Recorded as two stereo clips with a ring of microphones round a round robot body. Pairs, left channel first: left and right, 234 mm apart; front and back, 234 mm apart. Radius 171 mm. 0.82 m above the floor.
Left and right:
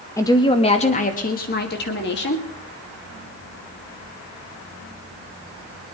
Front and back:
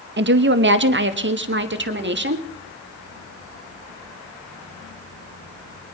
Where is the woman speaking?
165° left, 1.0 m; by 2.5 s 135° left, 1.9 m.